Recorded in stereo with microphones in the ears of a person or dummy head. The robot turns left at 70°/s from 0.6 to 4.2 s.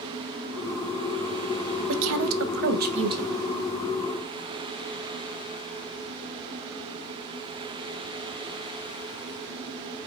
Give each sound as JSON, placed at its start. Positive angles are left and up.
{"t": 1.9, "sound": "a woman speaking", "azimuth_deg": -70, "distance_m": 0.7}